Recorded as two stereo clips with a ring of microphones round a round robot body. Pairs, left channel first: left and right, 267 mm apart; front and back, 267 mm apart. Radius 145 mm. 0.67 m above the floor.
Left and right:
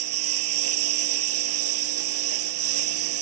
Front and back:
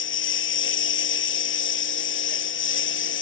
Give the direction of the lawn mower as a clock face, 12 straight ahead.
1 o'clock.